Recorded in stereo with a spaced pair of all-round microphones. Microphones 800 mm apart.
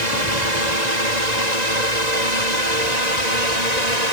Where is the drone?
55° right (ahead or behind); by 4.1 s 50° right (ahead or behind).